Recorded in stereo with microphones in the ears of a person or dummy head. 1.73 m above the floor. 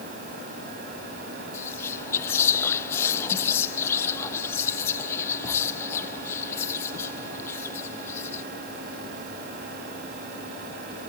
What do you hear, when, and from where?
1.5 s whispering: 20° left (ahead or behind), 0.5 m